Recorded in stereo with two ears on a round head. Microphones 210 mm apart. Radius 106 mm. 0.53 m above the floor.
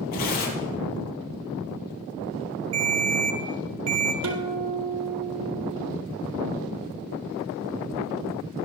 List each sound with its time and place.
0.1 s tearing paper: 70° left (ahead or behind), 6 m
2.7 s a ringtone: 65° right (ahead or behind), 4 m
4.2 s a guitar: 75° right (ahead or behind), 2.5 m